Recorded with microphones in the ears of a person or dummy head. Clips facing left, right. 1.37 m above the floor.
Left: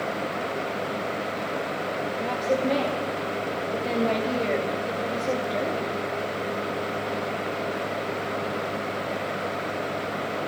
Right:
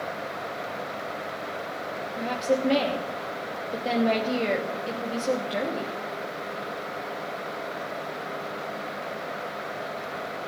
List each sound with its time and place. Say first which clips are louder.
2.2 s a woman speaking: right 1 dB; 5° right (ahead or behind), 2 m